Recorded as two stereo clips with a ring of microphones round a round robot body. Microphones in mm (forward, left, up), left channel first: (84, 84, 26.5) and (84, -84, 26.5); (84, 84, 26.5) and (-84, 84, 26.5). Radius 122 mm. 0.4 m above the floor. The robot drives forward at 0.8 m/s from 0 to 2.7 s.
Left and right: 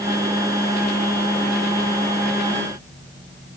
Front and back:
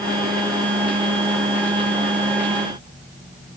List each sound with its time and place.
Only background noise.